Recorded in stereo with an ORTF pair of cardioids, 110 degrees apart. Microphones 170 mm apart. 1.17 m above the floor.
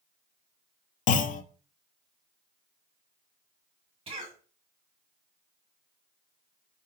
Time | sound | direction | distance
1.1 | a clunk | 50° left | 0.6 m
4.1 | a cough | 35° right | 2 m